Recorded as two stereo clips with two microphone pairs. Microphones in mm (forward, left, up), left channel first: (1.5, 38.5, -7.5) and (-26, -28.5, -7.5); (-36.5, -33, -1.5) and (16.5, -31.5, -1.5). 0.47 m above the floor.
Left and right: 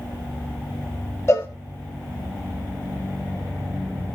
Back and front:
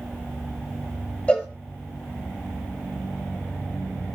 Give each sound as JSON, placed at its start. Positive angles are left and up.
{"t": 1.3, "sound": "a cowbell", "azimuth_deg": 115, "distance_m": 1.2}